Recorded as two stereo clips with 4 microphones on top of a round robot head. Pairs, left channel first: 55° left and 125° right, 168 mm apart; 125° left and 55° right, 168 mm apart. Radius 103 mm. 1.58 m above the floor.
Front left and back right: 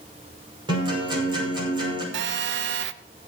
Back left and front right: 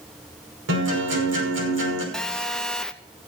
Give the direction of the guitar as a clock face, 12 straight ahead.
2 o'clock.